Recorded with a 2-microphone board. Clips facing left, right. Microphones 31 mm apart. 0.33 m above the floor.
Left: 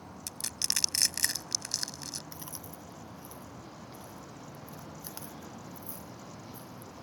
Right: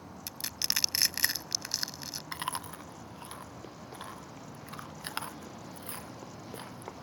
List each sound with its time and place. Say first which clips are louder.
0.3 s crushing: right 1 dB; 20° right (ahead or behind)
2.3 s chewing: right 9 dB; 60° right (ahead or behind)